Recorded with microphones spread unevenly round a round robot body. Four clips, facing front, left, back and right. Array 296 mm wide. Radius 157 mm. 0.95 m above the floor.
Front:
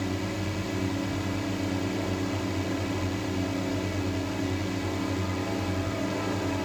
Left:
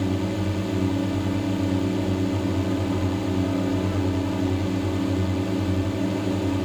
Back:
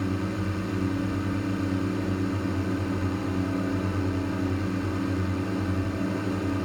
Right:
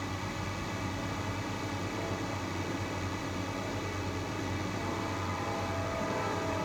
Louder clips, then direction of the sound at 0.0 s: Left 12 dB, back 2 dB; 105° left.